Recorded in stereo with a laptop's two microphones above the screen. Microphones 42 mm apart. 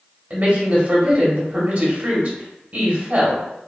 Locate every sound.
0.3 s a woman speaking: 35° right (ahead or behind), 1.0 m